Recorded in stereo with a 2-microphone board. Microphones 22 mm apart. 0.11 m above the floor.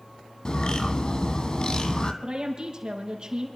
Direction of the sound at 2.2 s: 45° right (ahead or behind).